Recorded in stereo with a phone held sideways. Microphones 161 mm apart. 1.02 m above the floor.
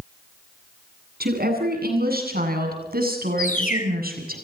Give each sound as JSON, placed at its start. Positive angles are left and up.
{"t": 1.2, "sound": "a woman speaking", "side_deg": -75, "distance_m": 8.5}
{"t": 3.4, "sound": "a bird", "side_deg": 55, "distance_m": 2.0}